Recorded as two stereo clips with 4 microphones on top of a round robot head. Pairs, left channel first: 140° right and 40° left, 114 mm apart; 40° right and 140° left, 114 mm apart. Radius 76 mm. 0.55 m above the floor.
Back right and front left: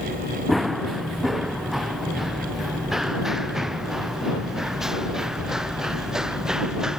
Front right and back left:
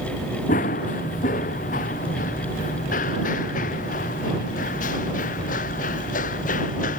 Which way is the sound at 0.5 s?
50° right.